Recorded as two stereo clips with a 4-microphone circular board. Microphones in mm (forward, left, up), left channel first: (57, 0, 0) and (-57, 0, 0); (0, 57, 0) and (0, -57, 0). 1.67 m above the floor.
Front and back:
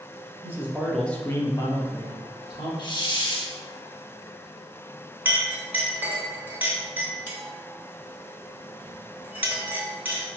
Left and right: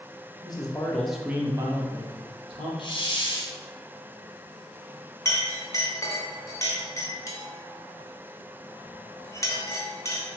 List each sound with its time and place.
0.4 s a man speaking: 120° left, 0.6 m; by 2.7 s 50° right, 1.2 m
2.8 s a hiss: 45° left, 0.6 m
5.2 s a clink: 120° left, 0.7 m